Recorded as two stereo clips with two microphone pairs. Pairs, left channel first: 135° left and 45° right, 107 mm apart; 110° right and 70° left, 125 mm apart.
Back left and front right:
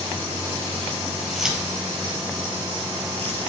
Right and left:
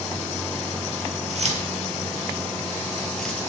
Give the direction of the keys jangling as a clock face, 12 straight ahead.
10 o'clock.